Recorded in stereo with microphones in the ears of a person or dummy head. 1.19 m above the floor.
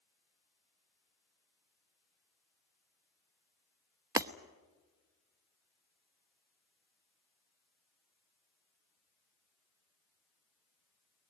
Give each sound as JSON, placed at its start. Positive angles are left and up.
{"t": 4.2, "sound": "breaking glass", "side_deg": -10, "distance_m": 0.9}